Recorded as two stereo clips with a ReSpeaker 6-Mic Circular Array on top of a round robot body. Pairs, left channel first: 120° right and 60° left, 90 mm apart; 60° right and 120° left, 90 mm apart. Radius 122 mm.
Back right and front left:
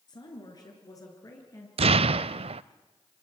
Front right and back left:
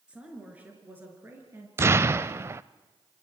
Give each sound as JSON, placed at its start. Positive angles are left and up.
{"t": 0.1, "sound": "a woman speaking", "azimuth_deg": -160, "distance_m": 6.5}
{"t": 1.8, "sound": "an explosion", "azimuth_deg": 55, "distance_m": 0.6}